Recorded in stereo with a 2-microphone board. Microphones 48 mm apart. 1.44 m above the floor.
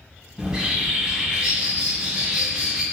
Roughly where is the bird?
Centre.